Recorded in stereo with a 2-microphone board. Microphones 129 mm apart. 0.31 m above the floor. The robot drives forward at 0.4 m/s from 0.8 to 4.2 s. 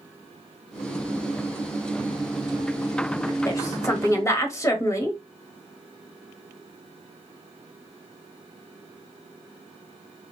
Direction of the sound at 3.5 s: 25° left (ahead or behind).